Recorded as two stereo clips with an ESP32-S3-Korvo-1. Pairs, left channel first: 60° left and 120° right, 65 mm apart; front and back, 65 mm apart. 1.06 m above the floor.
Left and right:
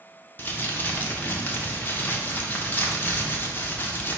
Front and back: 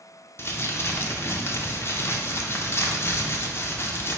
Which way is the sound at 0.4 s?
20° left.